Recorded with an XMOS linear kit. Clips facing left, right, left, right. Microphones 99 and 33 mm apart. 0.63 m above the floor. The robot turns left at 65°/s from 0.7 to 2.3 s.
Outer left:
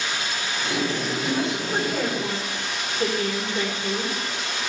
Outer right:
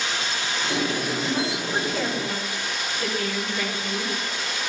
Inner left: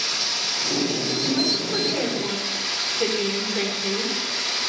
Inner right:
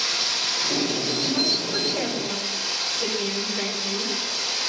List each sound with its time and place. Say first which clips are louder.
0.0 s running water: even, inner right 1 dB; 150° right, 3.5 m; by 4.7 s 105° left, 3.5 m
1.2 s a woman speaking: outer left 1 dB, inner left 1 dB; 165° right, 2.5 m; by 4.1 s 125° left, 2.5 m